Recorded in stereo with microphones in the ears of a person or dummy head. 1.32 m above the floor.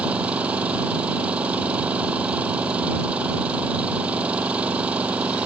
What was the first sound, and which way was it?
An engine running, 5° right (ahead or behind).